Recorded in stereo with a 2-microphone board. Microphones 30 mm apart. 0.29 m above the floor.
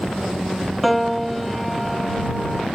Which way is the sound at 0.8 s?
Centre (ahead or behind).